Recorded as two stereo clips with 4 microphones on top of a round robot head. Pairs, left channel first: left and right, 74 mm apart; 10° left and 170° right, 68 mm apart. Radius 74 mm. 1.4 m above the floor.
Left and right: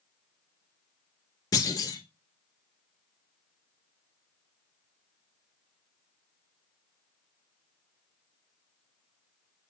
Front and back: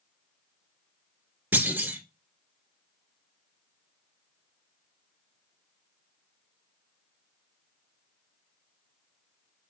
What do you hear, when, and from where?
1.5 s a clunk: 130° left, 2.5 m